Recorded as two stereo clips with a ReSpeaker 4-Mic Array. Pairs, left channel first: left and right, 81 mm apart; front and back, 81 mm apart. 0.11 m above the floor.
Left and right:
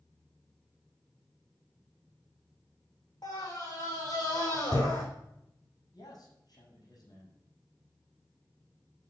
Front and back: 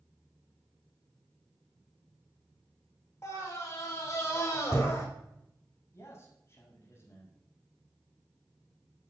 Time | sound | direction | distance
3.2 | a scream | 50° left | 6.5 m
5.9 | a man speaking | 55° left | 6.5 m